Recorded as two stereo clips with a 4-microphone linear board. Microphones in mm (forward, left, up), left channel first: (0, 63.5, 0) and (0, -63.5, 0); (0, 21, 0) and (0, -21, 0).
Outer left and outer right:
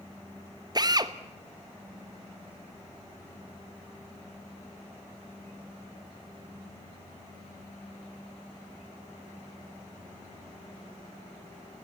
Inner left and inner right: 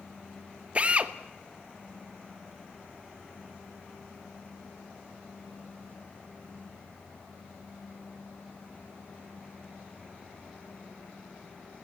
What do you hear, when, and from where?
0.8 s a drill: 30° right (ahead or behind), 0.9 m